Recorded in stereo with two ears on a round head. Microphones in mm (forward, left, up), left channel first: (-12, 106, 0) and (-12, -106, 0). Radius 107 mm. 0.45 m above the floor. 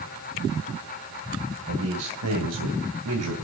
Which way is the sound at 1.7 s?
60° right (ahead or behind).